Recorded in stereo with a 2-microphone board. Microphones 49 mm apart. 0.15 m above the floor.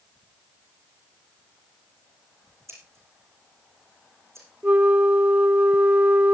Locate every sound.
2.7 s scissors: 70° right (ahead or behind), 8 m
4.6 s a flute: 35° right (ahead or behind), 0.6 m